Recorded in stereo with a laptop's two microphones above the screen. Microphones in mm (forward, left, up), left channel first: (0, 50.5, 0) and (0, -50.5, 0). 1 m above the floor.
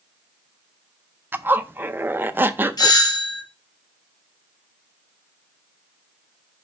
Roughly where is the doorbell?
Left.